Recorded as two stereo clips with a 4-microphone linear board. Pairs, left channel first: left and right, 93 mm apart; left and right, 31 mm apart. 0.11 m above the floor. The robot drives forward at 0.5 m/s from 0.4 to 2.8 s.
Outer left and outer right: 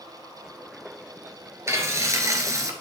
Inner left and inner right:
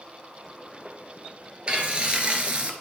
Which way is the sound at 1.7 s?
30° right (ahead or behind).